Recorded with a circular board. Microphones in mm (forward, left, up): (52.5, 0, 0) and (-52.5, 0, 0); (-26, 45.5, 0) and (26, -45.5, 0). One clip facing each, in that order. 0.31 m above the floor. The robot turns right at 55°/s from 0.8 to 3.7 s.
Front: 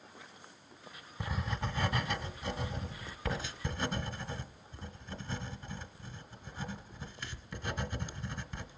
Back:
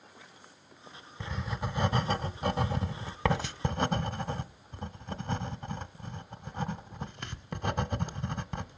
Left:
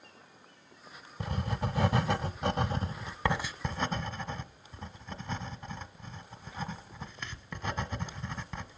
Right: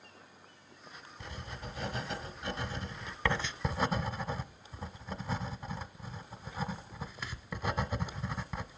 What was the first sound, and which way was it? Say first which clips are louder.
Writing: back 1 dB, left 11 dB; 80° left.